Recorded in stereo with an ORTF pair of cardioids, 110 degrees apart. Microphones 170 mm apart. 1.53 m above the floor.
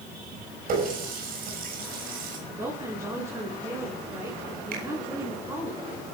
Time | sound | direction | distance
0.7 | a running tap | 60° right | 6 m
2.5 | a woman speaking | 20° right | 7 m
4.7 | a finger snap | 65° right | 5.5 m